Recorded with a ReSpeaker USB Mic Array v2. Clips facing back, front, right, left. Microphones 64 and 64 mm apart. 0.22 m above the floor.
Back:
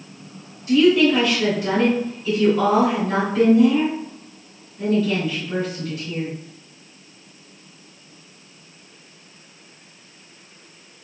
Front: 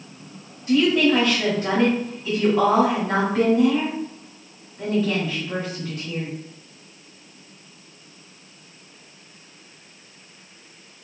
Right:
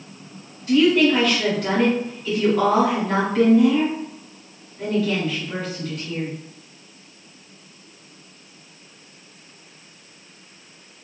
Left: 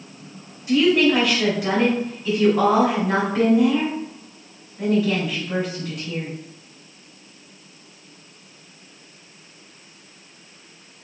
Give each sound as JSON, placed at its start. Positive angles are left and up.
{"t": 0.7, "sound": "a woman speaking", "azimuth_deg": 15, "distance_m": 1.9}